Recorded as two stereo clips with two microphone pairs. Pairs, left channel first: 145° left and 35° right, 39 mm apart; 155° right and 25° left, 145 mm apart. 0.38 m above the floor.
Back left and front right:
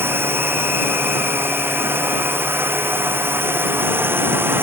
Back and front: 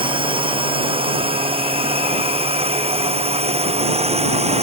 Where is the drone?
30° right; by 4.6 s 20° right.